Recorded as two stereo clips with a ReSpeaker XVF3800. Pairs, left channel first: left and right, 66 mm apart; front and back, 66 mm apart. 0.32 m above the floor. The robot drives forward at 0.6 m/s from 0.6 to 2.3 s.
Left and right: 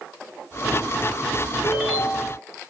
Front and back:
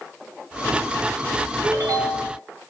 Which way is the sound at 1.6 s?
170° right.